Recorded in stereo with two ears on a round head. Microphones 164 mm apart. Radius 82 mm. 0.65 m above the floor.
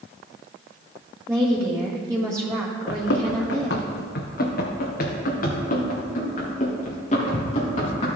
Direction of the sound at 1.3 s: 20° right (ahead or behind).